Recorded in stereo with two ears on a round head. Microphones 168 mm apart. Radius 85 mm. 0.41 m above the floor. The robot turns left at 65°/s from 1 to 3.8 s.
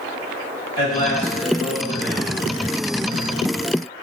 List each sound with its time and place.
0.8 s a man speaking: 140° left, 1.8 m; by 2.3 s 55° left, 1.8 m